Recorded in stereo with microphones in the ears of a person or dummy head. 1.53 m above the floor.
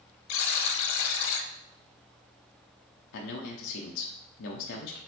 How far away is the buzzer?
About 0.8 m.